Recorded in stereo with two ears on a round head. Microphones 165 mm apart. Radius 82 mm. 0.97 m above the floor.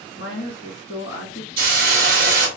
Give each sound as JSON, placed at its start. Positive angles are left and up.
{"t": 0.1, "sound": "a woman speaking", "side_deg": 70, "distance_m": 1.1}
{"t": 1.6, "sound": "a hiss", "side_deg": -55, "distance_m": 1.0}